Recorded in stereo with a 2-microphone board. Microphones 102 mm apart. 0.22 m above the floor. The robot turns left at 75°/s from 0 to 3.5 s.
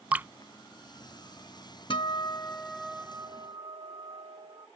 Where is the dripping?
15° right (ahead or behind); by 0.3 s 25° right (ahead or behind).